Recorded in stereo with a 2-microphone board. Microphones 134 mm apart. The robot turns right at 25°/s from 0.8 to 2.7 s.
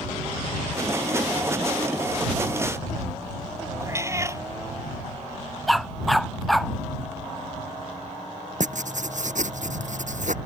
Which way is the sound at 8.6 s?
70° right (ahead or behind).